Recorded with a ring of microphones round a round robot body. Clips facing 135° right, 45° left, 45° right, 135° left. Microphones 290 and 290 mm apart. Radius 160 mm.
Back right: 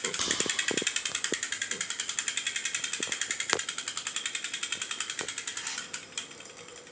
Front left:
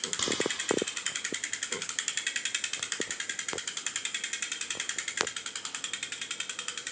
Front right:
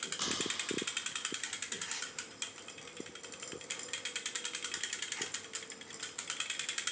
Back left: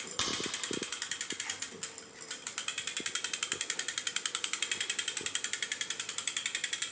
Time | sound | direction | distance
0.2 | a crack | 140° left | 2 m